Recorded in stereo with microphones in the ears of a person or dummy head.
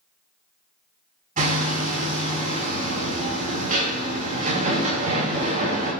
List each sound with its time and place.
1.4 s hammering: 40° right (ahead or behind), 4.5 m